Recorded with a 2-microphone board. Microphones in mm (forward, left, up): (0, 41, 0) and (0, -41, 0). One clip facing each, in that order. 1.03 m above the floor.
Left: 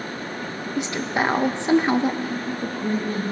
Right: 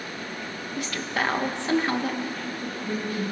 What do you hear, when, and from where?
0.8 s a woman speaking: 20° left (ahead or behind), 0.6 m
2.3 s a woman speaking: 40° left (ahead or behind), 2.5 m